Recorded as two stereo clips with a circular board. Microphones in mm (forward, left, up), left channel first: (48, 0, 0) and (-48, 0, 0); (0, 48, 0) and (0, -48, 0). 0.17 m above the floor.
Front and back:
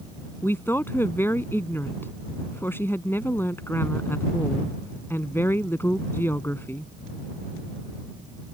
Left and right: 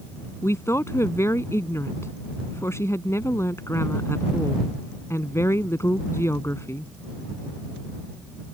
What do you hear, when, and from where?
0.4 s a woman speaking: 50° left